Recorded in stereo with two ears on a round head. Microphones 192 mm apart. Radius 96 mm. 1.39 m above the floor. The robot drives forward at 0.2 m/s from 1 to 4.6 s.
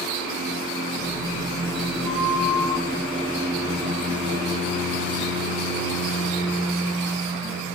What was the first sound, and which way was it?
A flute, 5° right (ahead or behind).